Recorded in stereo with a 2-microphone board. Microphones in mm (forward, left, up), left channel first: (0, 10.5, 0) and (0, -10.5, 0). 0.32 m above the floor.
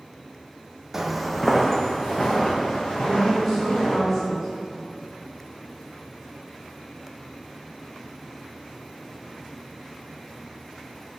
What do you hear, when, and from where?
0.9 s footsteps: 20° right (ahead or behind), 0.6 m; by 4.0 s 40° left (ahead or behind), 3 m
3.0 s a woman speaking: 15° left (ahead or behind), 2 m